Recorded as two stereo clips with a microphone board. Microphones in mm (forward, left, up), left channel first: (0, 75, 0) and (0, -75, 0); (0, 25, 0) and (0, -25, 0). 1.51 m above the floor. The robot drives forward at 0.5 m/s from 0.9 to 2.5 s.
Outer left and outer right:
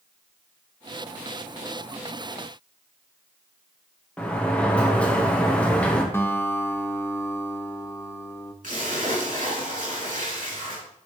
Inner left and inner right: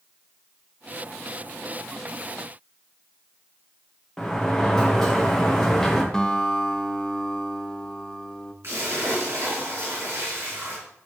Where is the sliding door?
10° left (ahead or behind), 1.1 m.